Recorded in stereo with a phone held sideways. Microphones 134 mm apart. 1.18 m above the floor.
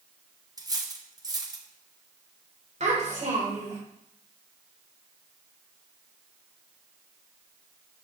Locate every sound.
0.6 s cutlery clinking: 30° right (ahead or behind), 0.9 m
2.8 s a child speaking: 55° right (ahead or behind), 3.5 m